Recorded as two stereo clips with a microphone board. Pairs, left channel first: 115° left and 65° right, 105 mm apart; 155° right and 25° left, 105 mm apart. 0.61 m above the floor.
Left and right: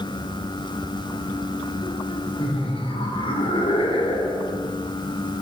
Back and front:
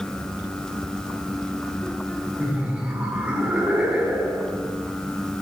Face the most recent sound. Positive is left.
turn(degrees=100)